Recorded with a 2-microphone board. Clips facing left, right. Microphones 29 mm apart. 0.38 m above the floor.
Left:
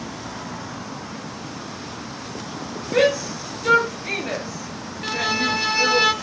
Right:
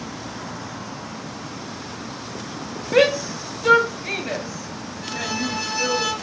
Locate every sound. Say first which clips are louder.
2.9 s a shout: right 1 dB; 25° right (ahead or behind), 1.9 m; by 6.0 s 25° left (ahead or behind), 2 m
5.0 s a violin: left 5 dB; 30° left (ahead or behind), 0.8 m